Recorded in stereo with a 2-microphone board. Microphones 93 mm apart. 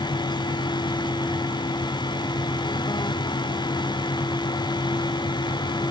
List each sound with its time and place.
Only background noise.